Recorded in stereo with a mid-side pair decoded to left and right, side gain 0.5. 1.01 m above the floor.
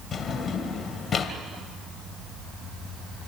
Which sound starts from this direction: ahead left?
A drawer, at 0.1 s.